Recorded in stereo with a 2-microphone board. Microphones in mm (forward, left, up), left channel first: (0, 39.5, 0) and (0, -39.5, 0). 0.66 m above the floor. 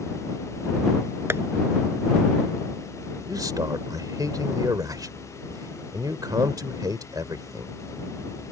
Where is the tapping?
35° right (ahead or behind).